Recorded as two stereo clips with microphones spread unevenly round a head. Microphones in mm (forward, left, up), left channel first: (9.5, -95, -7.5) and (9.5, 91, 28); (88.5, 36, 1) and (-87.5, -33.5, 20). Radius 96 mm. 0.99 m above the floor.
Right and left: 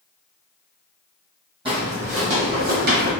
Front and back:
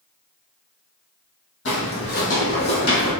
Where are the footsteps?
40° left, 1.6 m; by 3.1 s 90° left, 1.9 m.